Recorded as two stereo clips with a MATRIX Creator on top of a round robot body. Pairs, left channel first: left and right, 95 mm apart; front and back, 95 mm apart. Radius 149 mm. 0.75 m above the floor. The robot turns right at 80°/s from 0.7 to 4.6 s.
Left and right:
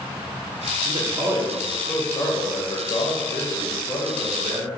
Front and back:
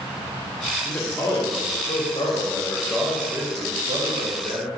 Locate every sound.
0.8 s a man speaking: 80° right, 1.1 m; by 4.7 s 140° right, 1.1 m